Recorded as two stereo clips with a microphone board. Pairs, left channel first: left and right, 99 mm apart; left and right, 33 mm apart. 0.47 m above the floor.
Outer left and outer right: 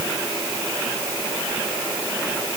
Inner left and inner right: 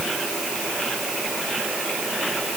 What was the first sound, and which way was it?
Only background noise.